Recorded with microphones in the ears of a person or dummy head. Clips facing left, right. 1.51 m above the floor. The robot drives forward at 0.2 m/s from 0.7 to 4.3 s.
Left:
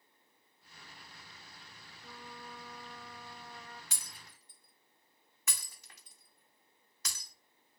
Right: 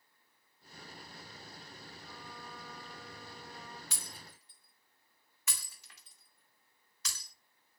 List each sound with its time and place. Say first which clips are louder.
2.0 s a trumpet: left 3 dB; 65° left (ahead or behind), 2.0 m; by 3.8 s 60° left (ahead or behind), 2 m
3.9 s breaking glass: right 5 dB; 50° left (ahead or behind), 1.6 m